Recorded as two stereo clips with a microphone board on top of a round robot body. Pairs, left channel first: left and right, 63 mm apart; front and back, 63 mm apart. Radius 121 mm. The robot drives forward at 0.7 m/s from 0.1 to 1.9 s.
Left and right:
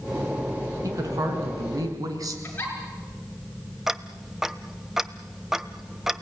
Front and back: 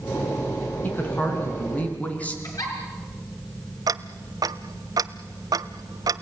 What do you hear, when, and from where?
0.8 s a woman speaking: 60° right, 5.5 m; by 2.3 s 65° right, 5 m
2.4 s a giggle: 30° left, 5.5 m
3.9 s ticking: 175° right, 0.8 m